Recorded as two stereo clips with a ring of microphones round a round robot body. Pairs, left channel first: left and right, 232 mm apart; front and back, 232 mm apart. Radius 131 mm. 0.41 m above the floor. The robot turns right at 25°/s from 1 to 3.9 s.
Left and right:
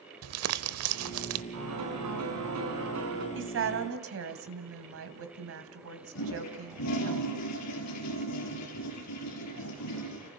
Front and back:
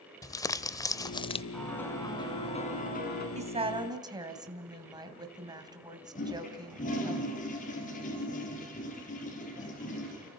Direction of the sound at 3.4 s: 120° right.